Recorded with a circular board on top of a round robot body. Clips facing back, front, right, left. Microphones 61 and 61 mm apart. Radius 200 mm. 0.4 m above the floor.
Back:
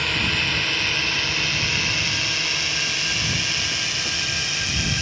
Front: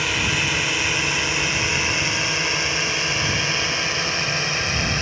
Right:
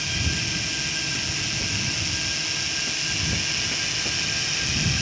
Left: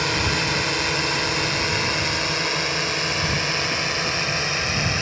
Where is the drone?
80° left; by 5.0 s 45° left.